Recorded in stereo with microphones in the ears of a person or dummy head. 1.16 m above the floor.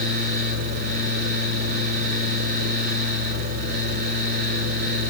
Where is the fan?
50° right (ahead or behind), 5 m.